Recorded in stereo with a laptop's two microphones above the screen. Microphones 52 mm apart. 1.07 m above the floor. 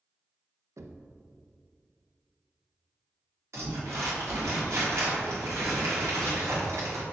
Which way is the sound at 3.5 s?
70° right (ahead or behind).